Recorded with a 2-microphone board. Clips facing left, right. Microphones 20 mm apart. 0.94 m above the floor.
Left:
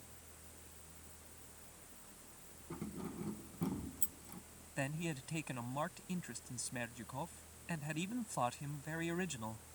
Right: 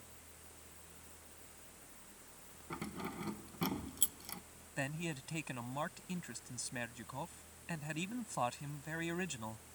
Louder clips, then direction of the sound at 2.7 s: Right 2 dB; 75° right (ahead or behind).